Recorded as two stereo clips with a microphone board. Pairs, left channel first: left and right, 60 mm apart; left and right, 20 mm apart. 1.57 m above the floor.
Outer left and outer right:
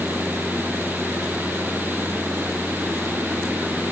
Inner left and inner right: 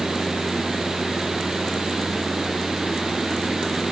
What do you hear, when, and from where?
Only background noise.